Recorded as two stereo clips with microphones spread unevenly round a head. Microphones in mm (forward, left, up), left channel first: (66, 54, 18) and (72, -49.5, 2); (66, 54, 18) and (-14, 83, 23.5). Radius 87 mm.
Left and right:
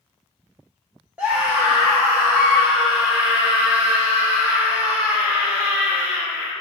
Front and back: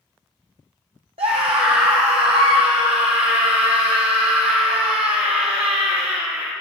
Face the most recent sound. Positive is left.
turn(degrees=-170)